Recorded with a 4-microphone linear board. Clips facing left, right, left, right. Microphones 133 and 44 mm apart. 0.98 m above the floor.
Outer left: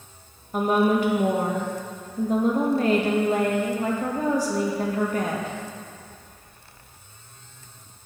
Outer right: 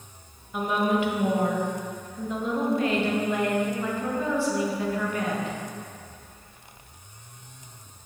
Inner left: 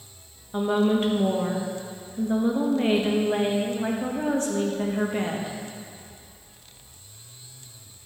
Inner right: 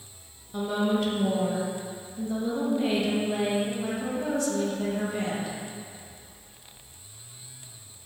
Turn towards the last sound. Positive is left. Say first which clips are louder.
# outer left 4 dB, inner left 4 dB
turn(degrees=40)  # may be behind; listen again after turning